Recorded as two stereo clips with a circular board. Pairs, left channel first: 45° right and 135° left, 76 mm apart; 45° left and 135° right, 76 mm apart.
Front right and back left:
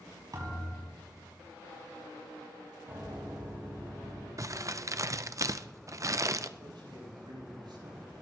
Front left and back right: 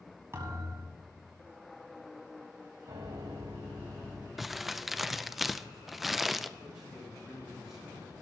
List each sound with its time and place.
0.3 s a thud: 170° left, 5.5 m
2.9 s a piano: 165° right, 5 m
4.4 s crumpling: 140° left, 0.6 m
6.6 s a man speaking: 140° left, 9 m